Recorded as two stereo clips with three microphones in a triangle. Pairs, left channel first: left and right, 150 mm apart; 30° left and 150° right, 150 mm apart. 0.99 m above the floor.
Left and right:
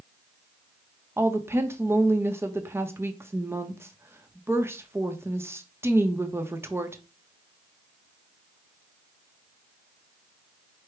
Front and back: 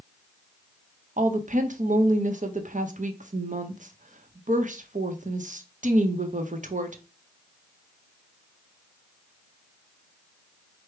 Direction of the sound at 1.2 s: 160° right.